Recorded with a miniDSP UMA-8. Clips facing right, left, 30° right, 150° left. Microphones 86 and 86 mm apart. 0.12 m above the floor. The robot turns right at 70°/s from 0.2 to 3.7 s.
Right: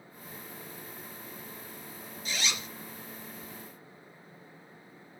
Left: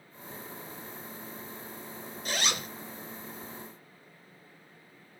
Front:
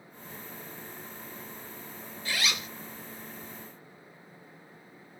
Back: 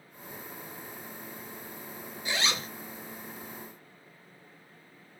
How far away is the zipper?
About 0.5 m.